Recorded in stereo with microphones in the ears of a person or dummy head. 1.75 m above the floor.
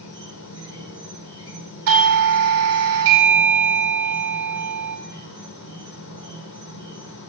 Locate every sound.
0.0 s an insect: 60° left (ahead or behind), 1.5 m
1.9 s a doorbell: 80° right, 1.2 m